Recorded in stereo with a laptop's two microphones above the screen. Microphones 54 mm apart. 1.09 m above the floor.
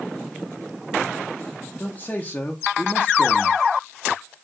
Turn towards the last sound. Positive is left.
turn(degrees=25)  # may be behind; listen again after turning